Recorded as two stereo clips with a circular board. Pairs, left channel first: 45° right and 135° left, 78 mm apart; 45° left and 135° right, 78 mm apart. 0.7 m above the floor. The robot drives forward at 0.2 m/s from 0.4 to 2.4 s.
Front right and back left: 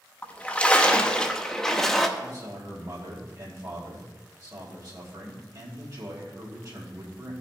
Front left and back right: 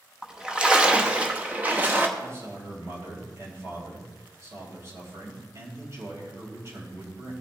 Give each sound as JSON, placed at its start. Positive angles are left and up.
{"t": 0.2, "sound": "a splash", "azimuth_deg": -75, "distance_m": 0.9}
{"t": 2.2, "sound": "a man speaking", "azimuth_deg": 170, "distance_m": 4.0}